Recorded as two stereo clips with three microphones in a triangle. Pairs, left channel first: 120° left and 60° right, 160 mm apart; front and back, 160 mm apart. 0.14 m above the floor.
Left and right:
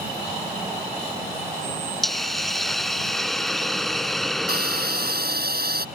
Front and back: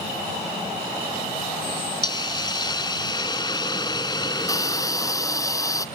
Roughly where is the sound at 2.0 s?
Ahead left.